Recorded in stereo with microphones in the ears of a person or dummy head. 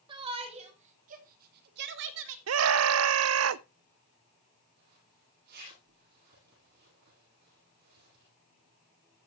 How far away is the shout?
About 2 m.